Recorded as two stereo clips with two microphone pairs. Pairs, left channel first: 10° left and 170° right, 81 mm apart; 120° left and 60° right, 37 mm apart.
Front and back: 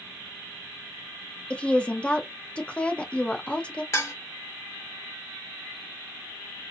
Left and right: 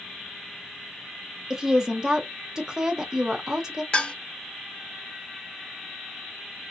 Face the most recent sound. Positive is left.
turn(degrees=65)